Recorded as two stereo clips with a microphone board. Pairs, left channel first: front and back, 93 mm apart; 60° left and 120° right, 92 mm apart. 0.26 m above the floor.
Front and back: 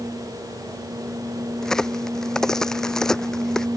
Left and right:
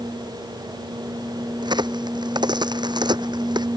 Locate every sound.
1.6 s a crack: 85° right